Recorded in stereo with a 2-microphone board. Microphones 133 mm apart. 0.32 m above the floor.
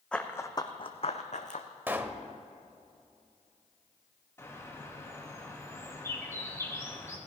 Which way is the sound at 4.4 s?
20° left (ahead or behind).